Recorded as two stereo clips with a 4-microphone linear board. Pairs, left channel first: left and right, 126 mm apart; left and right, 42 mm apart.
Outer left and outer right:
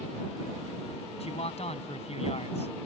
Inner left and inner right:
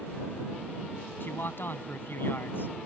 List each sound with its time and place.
1.2 s a man speaking: 60° left (ahead or behind)